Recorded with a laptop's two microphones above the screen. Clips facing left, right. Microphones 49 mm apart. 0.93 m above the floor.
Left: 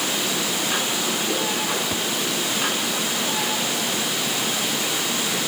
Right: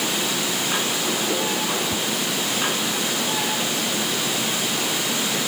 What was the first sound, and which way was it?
A whoosh, 5° left (ahead or behind).